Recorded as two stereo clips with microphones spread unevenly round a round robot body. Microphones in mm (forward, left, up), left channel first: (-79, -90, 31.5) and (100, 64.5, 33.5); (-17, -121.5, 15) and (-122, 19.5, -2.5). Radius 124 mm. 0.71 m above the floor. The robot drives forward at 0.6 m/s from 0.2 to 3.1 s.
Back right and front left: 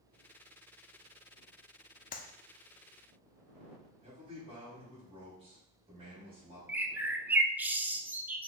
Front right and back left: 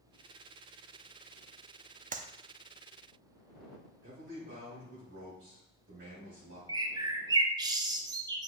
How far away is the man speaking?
About 3.5 m.